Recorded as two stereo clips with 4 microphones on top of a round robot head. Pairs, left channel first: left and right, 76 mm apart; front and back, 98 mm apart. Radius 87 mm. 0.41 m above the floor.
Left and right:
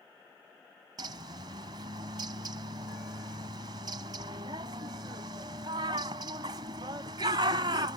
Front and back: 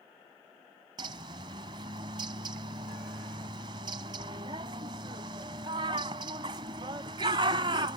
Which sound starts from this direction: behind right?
A bird, at 1.0 s.